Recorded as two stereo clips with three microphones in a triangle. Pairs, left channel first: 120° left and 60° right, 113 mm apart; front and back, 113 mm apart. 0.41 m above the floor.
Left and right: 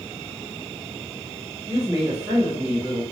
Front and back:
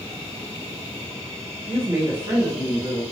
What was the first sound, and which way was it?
A woman speaking, 130° right.